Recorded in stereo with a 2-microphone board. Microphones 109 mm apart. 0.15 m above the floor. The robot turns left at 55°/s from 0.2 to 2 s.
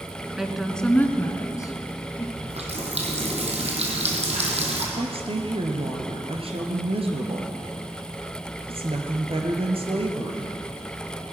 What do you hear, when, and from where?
0.4 s a woman speaking: 5° right (ahead or behind), 1.3 m; by 2.2 s 35° left (ahead or behind), 1.3 m
2.4 s a running tap: 75° right (ahead or behind), 3.5 m
5.0 s a woman speaking: 60° right (ahead or behind), 2.5 m